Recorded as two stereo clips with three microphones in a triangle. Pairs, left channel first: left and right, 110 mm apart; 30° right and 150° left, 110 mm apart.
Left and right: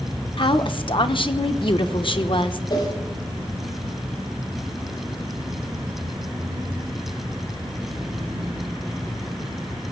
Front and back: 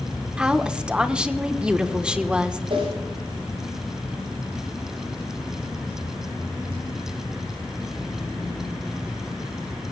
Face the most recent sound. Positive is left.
turn(degrees=130)